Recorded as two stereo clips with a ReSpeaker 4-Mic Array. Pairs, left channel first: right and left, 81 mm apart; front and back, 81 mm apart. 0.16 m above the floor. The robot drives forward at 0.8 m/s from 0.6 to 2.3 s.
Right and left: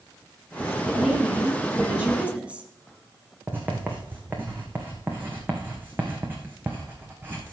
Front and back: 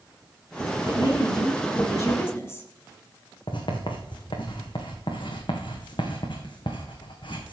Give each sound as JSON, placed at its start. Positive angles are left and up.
{"t": 0.8, "sound": "a woman speaking", "azimuth_deg": 10, "distance_m": 2.5}
{"t": 3.5, "sound": "writing", "azimuth_deg": 20, "distance_m": 2.0}